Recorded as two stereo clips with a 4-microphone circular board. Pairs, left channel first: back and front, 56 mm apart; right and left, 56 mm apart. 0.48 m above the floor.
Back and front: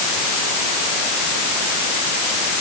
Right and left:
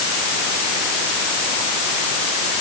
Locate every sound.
Only background noise.